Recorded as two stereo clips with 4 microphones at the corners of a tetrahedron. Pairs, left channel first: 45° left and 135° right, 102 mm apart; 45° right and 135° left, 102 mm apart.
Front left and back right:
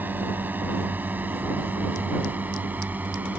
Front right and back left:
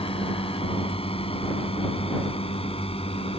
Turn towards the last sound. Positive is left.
turn(degrees=-60)